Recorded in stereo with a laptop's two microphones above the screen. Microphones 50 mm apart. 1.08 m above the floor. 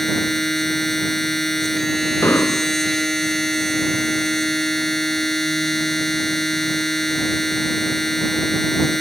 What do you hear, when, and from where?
0.0 s a machine running: 5° left (ahead or behind)
2.2 s an explosion: 70° left (ahead or behind)